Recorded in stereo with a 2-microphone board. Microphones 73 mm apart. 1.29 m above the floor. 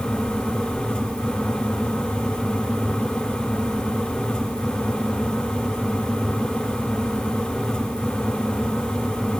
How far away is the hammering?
I don't hear hammering.